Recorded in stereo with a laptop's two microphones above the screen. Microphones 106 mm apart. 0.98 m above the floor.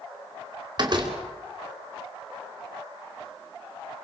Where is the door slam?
45° right (ahead or behind), 2 m.